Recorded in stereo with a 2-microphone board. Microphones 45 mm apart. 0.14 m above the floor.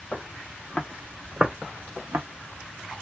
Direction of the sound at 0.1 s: 30° left (ahead or behind).